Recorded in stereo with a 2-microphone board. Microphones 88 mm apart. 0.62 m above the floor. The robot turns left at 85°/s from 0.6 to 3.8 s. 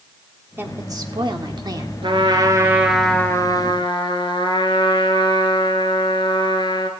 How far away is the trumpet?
About 1.8 m.